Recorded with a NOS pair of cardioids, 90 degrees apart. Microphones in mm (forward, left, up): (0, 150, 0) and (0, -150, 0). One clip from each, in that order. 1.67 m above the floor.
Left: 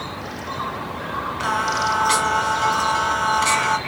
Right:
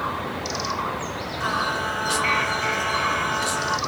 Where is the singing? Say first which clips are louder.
Left 3 dB; 45° left, 1.2 m.